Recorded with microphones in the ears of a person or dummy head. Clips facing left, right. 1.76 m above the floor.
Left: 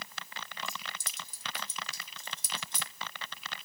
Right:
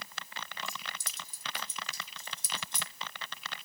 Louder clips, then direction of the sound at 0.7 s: Left 1 dB; 60° left (ahead or behind).